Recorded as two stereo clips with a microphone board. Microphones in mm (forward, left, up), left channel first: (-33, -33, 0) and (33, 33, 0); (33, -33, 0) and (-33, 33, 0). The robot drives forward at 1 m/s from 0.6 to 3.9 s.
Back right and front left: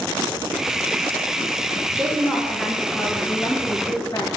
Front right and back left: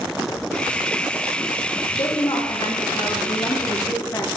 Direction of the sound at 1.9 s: 35° right.